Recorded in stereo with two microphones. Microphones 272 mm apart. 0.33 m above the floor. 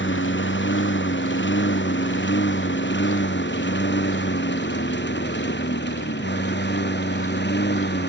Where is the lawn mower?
45° left (ahead or behind); by 8.1 s 40° left (ahead or behind).